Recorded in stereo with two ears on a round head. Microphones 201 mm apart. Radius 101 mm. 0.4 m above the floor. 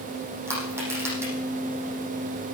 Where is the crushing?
10° right (ahead or behind), 6.5 m.